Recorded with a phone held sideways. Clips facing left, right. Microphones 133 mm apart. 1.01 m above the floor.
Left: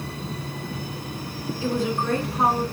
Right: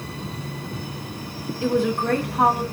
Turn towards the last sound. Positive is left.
turn(degrees=-60)  # may be behind; listen again after turning